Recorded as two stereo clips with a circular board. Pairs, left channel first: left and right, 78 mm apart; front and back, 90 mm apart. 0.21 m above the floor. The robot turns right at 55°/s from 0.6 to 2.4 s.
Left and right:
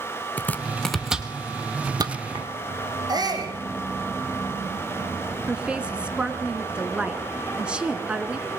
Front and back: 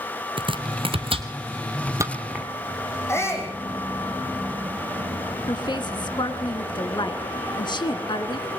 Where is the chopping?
160° left, 2 m; by 2.5 s 100° right, 2 m.